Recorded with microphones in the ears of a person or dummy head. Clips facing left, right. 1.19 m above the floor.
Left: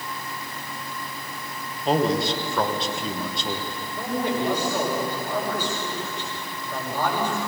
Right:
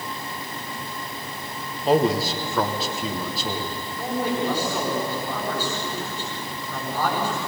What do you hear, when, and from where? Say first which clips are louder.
1.9 s a man speaking: right 2 dB; centre (ahead or behind), 1.2 m
4.0 s a man speaking: even; 15° left (ahead or behind), 6 m